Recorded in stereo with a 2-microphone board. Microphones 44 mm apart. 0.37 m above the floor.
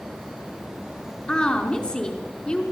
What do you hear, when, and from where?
1.3 s a woman speaking: 25° left (ahead or behind), 4.5 m